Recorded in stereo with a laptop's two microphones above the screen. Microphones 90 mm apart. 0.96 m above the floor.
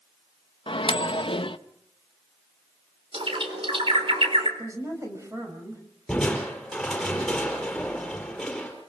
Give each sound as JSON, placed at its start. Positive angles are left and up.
{"t": 0.7, "sound": "a microwave", "side_deg": 65, "distance_m": 0.8}
{"t": 3.1, "sound": "a bird", "side_deg": -70, "distance_m": 4.0}
{"t": 4.6, "sound": "a woman speaking", "side_deg": -35, "distance_m": 5.0}
{"t": 6.1, "sound": "crushing", "side_deg": 5, "distance_m": 4.5}